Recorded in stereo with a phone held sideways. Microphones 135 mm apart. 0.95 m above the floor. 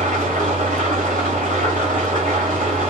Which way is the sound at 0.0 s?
80° right.